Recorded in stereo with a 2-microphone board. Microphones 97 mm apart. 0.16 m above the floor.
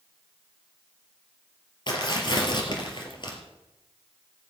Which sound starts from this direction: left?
Tearing paper, at 1.9 s.